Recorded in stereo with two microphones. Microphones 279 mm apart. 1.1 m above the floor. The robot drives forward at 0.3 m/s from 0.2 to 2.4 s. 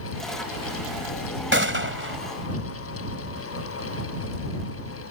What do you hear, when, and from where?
1.5 s a gunshot: 45° right (ahead or behind)